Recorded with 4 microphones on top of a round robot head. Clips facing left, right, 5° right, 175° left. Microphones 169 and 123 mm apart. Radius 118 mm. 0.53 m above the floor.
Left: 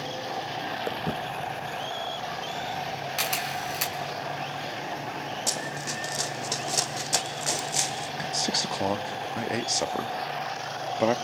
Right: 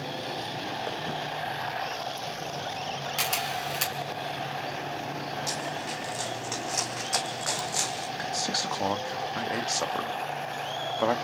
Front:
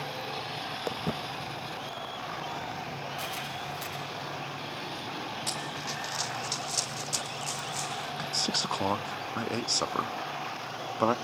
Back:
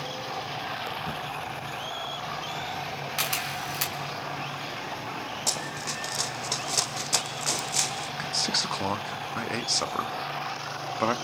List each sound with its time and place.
0.9 s footsteps: 30° left, 1.4 m; by 4.0 s 45° left, 4 m
3.2 s a camera shutter: 175° left, 4.5 m
5.5 s running footsteps: 125° left, 2.5 m; by 8.1 s 165° left, 2.5 m
8.2 s a man speaking: 50° left, 1.1 m